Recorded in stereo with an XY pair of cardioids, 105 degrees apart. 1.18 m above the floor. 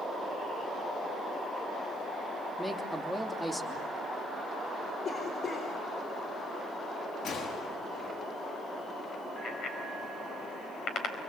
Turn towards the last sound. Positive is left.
turn(degrees=65)